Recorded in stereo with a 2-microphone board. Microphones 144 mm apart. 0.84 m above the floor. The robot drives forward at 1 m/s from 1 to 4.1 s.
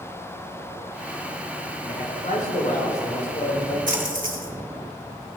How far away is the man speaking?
About 3 m.